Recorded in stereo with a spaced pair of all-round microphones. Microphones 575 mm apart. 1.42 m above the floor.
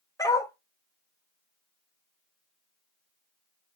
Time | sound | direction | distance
0.2 | a dog barking | 5° left (ahead or behind) | 1.3 m